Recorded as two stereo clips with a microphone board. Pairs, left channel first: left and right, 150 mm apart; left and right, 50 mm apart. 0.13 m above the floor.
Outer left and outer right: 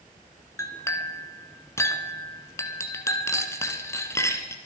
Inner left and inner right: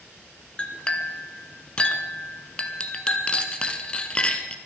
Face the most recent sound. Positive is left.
turn(degrees=20)  # may be behind; listen again after turning